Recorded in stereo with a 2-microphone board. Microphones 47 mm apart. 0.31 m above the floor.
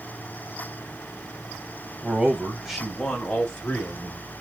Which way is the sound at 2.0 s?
30° right (ahead or behind).